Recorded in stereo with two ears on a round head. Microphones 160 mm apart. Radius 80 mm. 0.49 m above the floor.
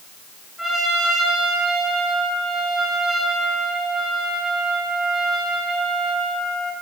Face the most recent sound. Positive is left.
turn(degrees=0)  # may be behind; listen again after turning